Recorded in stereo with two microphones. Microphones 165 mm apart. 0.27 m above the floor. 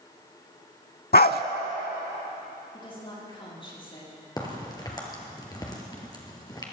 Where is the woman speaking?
30° left (ahead or behind), 7 m.